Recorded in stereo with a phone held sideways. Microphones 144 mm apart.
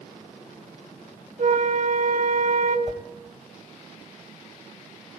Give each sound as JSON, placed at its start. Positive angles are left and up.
{"t": 1.4, "sound": "a flute", "side_deg": -60, "distance_m": 2.5}
{"t": 2.9, "sound": "a whoosh", "side_deg": -50, "distance_m": 2.5}